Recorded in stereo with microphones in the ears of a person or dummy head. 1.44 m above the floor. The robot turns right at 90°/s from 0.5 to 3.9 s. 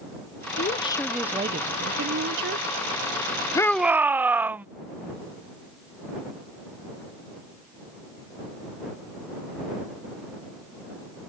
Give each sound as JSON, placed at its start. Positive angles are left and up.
{"t": 0.6, "sound": "a woman speaking", "azimuth_deg": 130}
{"t": 3.5, "sound": "a shout", "azimuth_deg": 160}